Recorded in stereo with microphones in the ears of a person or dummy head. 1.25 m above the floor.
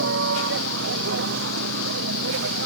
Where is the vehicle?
75° right (ahead or behind); by 2.7 s 80° right.